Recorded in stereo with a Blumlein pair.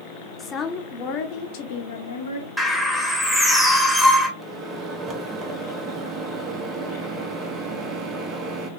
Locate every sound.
0.4 s a woman speaking: 15° left, 1.2 m; by 2.5 s 70° left, 1.4 m
2.6 s a bird: straight ahead, 1.4 m
4.4 s a microwave: 25° right, 1.1 m